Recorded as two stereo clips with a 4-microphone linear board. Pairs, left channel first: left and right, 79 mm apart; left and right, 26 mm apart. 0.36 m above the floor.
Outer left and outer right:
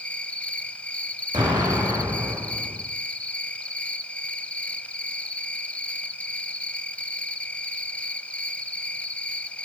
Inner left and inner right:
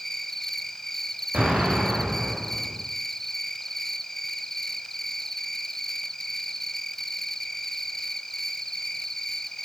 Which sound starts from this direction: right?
An explosion, at 1.3 s.